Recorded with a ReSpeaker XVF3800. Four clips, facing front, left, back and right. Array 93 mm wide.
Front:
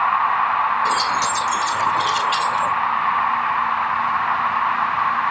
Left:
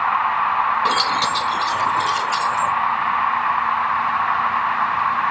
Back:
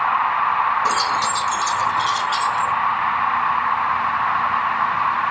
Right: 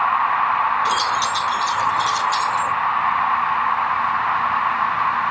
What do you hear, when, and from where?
0.8 s keys jangling: 105° left, 1.1 m; by 2.7 s 25° left, 2.0 m